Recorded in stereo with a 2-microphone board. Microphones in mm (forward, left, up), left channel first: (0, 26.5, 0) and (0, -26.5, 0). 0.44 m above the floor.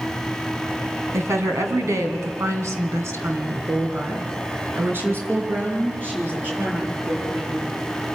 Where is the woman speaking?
65° right (ahead or behind), 3 m; by 7.7 s 30° right (ahead or behind), 8.5 m.